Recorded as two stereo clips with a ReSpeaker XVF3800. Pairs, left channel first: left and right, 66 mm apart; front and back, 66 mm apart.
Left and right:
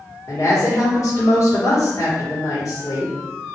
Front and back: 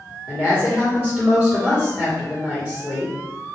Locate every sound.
0.3 s a woman speaking: 105° left, 1.2 m